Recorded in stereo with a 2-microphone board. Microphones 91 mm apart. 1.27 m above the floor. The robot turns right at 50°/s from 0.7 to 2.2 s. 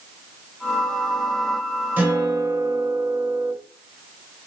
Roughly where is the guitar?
Centre.